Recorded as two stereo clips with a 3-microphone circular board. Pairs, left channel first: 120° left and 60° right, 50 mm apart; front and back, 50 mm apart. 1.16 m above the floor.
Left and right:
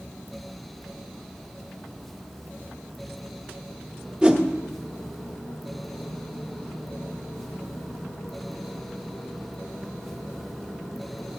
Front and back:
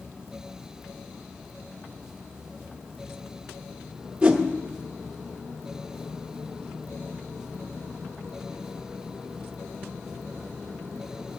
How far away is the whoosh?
About 1.0 m.